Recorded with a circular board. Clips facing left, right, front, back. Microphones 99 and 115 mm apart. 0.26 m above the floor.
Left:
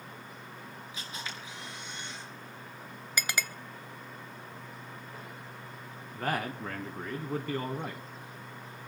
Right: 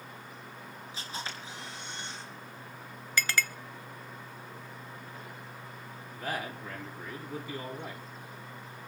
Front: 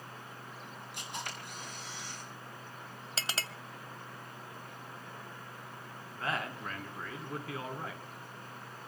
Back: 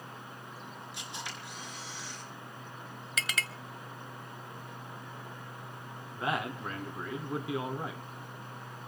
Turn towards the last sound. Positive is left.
turn(degrees=110)